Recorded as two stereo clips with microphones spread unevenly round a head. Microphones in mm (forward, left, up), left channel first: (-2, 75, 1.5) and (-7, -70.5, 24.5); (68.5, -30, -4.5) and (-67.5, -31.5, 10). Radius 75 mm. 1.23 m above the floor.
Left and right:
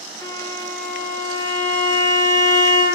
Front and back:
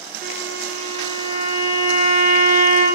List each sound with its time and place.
0.2 s a violin: 150° left, 0.6 m